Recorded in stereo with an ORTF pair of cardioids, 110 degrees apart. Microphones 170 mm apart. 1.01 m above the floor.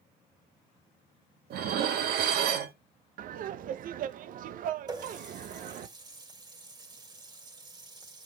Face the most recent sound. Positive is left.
turn(degrees=-25)